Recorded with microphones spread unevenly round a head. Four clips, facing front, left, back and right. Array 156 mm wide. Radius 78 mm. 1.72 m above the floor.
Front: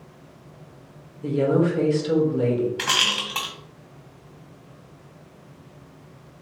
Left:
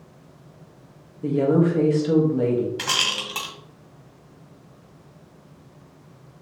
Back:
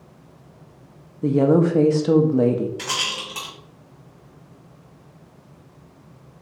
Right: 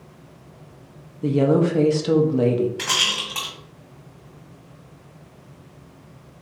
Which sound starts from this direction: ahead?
A rattle, at 2.8 s.